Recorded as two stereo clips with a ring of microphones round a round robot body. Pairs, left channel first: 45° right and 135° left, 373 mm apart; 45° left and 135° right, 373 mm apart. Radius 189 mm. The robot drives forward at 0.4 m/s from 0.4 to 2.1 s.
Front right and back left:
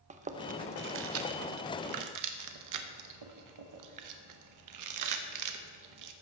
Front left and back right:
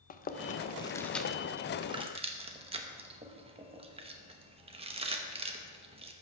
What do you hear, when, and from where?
0.1 s chewing: 85° left, 0.7 m; by 6.1 s 155° left, 1.0 m